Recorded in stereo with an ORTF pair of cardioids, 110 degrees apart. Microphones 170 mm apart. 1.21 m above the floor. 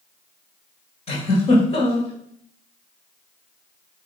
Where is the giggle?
40° left, 2.5 m.